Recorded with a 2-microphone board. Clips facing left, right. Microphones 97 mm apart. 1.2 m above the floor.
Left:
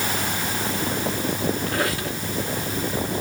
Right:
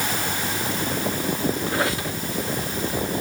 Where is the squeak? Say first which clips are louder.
Right 1 dB; 25° right (ahead or behind), 2.5 m.